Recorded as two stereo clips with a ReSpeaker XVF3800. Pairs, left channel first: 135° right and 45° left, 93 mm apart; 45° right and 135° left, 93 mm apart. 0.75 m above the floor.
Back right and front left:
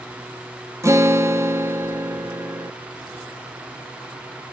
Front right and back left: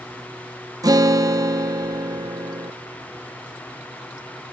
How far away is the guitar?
About 0.8 m.